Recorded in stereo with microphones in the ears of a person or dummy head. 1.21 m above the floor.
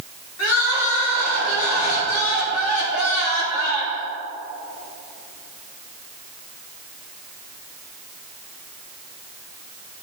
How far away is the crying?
About 3 m.